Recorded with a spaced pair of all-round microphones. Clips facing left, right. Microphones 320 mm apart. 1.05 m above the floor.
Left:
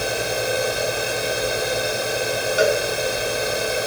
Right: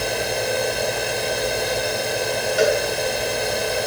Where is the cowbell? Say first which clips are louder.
Right 1 dB; 5° left (ahead or behind), 5 m.